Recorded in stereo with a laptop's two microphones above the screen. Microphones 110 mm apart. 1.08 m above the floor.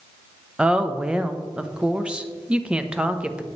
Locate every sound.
0.6 s a woman speaking: 10° right (ahead or behind), 0.7 m